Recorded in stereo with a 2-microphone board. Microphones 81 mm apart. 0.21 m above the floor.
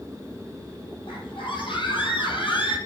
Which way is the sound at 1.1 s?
80° left.